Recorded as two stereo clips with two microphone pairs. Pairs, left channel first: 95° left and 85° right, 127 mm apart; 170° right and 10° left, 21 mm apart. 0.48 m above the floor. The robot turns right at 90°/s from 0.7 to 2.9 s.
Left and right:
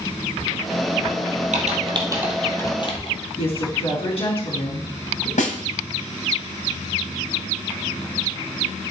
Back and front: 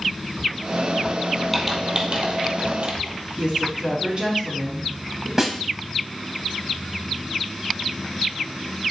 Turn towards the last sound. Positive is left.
turn(degrees=85)